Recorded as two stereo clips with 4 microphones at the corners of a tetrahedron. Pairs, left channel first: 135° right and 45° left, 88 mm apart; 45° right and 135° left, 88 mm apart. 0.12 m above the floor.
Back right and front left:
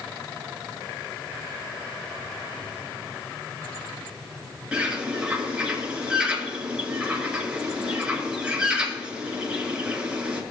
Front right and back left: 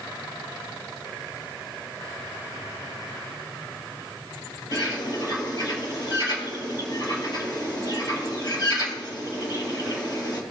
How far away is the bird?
About 2 m.